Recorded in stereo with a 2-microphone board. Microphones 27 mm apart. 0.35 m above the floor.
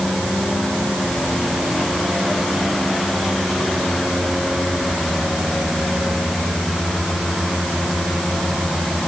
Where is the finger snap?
I don't hear a finger snap.